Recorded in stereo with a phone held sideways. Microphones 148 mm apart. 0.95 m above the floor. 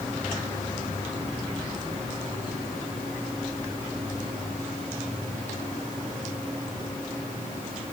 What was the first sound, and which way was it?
Only background noise.